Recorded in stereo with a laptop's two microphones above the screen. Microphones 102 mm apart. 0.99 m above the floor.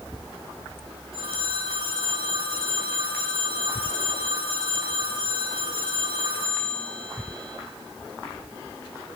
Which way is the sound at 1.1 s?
60° right (ahead or behind).